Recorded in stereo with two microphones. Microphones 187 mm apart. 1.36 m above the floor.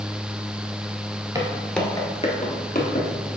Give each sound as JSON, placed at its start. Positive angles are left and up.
{"t": 1.4, "sound": "footsteps", "side_deg": -20, "distance_m": 1.5}